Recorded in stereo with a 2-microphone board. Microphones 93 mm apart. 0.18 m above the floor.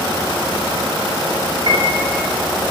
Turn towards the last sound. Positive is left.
turn(degrees=-55)  # may be behind; listen again after turning